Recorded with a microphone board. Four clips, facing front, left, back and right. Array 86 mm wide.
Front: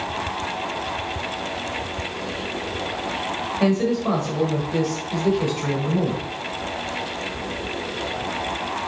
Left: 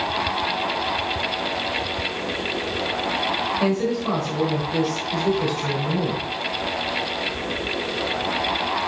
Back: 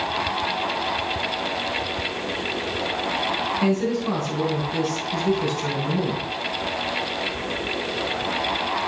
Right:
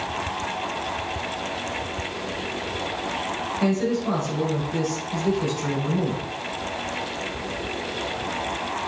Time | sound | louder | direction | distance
3.6 | a man speaking | right 1 dB, front 4 dB | 25° left | 5 m